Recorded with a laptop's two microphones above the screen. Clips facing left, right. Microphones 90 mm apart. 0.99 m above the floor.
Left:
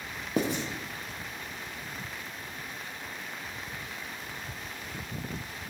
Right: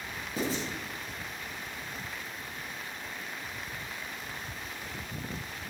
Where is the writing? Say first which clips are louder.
Left 4 dB; 60° left (ahead or behind), 1.1 m.